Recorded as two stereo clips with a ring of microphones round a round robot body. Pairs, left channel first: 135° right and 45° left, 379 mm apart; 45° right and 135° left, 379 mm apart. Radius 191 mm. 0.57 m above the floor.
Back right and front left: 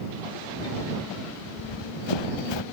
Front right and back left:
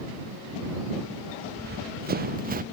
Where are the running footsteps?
160° right; by 2.6 s 155° right.